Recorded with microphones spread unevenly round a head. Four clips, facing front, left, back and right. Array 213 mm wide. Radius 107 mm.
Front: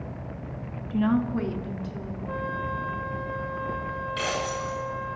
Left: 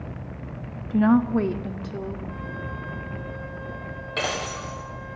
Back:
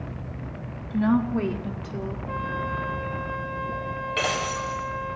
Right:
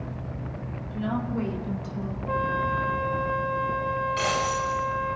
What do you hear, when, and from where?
0.9 s a woman speaking: 80° left, 1.3 m; by 2.2 s 125° left, 2.5 m
2.3 s a flute: 80° right, 3 m
4.2 s breaking glass: 115° left, 9.5 m